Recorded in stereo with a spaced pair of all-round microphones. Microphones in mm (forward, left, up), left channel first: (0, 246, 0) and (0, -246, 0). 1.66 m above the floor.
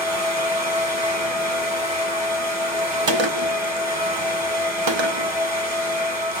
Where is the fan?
75° right (ahead or behind), 3 m.